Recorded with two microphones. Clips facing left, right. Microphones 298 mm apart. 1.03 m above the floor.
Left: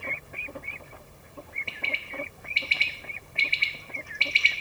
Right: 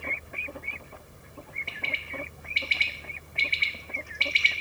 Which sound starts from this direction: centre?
A bird, at 1.7 s.